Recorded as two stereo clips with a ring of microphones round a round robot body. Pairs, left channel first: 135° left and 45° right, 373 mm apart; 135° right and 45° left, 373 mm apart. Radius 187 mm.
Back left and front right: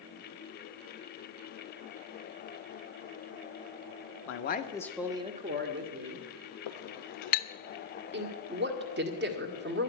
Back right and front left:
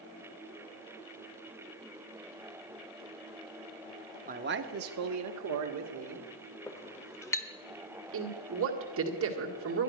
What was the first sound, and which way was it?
A man speaking, 105° left.